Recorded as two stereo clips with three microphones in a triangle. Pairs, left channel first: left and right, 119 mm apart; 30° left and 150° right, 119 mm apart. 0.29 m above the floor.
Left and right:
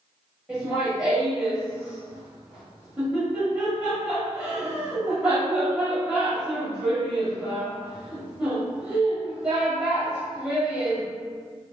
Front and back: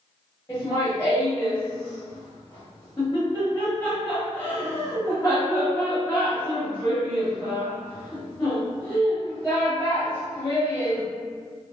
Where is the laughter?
15° right, 1.3 m.